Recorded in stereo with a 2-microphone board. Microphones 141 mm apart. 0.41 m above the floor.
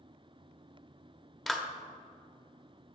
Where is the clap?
Centre (ahead or behind), 1.0 m.